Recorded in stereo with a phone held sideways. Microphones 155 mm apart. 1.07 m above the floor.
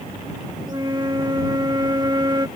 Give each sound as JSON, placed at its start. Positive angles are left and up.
{"t": 0.7, "sound": "a flute", "side_deg": -30}